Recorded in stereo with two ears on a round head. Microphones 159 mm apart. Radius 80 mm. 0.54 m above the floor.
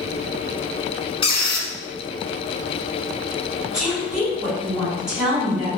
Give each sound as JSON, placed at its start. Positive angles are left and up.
{"t": 1.2, "sound": "a squeak", "side_deg": 30, "distance_m": 0.8}
{"t": 3.7, "sound": "a woman speaking", "side_deg": -5, "distance_m": 1.4}